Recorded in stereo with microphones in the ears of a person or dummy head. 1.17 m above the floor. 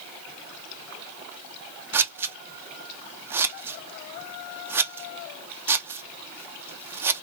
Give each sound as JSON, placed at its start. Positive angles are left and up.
{"t": 1.9, "sound": "scissors", "side_deg": -5, "distance_m": 0.5}